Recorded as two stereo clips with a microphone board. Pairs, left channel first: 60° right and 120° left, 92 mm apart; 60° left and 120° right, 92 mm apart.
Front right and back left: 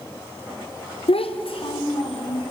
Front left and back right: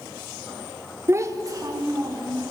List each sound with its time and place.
1.1 s a child speaking: 55° right, 0.7 m; by 2.5 s 75° right, 2.5 m